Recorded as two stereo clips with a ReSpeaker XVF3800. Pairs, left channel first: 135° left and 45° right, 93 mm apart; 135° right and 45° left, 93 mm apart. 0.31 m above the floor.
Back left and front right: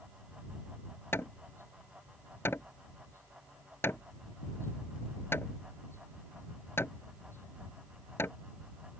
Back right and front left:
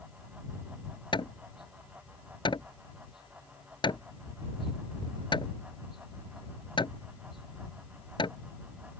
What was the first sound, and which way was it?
Hammering, 160° right.